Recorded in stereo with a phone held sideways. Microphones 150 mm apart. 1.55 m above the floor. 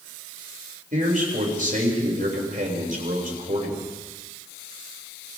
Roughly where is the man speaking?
Right.